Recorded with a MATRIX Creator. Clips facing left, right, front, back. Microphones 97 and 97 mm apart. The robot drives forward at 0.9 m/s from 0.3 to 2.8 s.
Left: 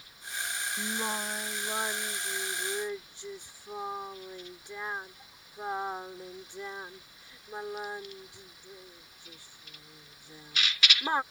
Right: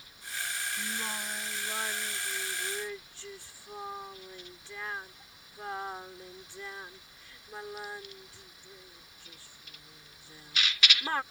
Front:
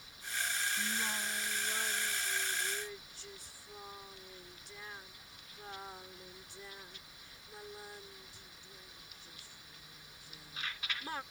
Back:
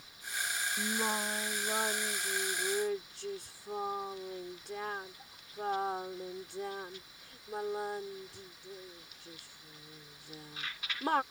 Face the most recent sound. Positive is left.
turn(degrees=160)